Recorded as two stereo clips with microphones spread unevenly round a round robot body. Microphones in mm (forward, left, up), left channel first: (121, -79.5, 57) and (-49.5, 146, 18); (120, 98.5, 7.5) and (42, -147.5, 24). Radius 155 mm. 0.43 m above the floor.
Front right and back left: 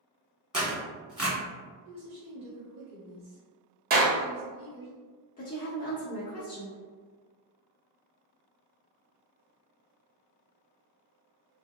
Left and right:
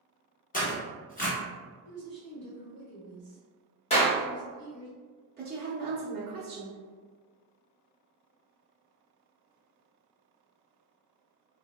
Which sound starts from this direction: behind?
A woman speaking, at 1.9 s.